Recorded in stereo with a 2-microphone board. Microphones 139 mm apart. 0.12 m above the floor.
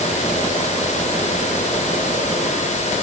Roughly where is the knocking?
No knocking in this recording.